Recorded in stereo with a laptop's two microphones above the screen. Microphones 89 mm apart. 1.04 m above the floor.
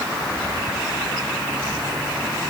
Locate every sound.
Only background noise.